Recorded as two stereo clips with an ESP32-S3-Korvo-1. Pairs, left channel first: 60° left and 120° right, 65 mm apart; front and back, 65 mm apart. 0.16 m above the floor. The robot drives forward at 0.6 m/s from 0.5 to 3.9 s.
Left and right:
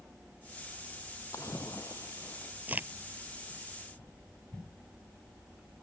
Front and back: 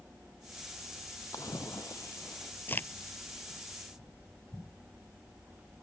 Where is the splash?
25° left; by 2.5 s 35° left.